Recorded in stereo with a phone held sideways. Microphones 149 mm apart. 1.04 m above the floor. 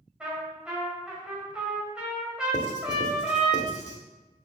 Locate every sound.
0.2 s a trumpet: 5° right (ahead or behind), 2 m
2.5 s writing: 50° left (ahead or behind), 1.1 m